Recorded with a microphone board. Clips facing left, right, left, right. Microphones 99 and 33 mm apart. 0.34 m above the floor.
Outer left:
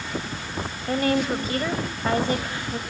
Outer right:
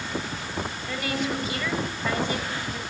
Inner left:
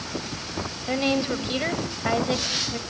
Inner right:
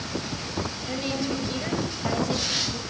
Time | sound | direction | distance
0.9 | a woman speaking | 45° left (ahead or behind) | 1.4 m